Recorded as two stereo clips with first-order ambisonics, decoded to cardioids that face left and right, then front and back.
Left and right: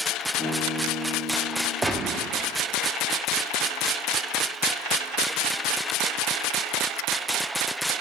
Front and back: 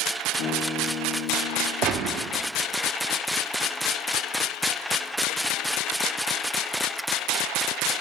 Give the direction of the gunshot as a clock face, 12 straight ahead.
6 o'clock.